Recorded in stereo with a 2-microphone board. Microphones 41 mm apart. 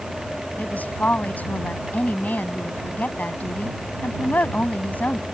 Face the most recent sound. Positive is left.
turn(degrees=45)  # may be behind; listen again after turning